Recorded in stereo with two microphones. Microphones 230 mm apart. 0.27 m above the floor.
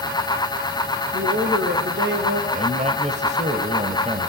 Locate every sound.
1.1 s a woman speaking: 55° right (ahead or behind), 4.5 m
2.5 s a man speaking: 30° right (ahead or behind), 1.9 m